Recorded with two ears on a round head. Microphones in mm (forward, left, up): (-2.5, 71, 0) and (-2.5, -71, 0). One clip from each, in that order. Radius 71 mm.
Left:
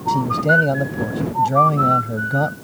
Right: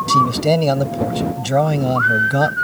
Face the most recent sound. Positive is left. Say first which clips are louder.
# right 1 dB
turn(degrees=-70)  # may be behind; listen again after turning